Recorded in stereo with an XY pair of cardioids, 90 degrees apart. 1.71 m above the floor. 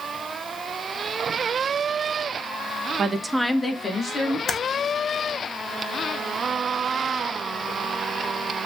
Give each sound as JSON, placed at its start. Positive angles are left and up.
{"t": 3.0, "sound": "a woman speaking", "azimuth_deg": -55, "distance_m": 0.6}
{"t": 4.5, "sound": "typing on a keyboard", "azimuth_deg": 55, "distance_m": 0.6}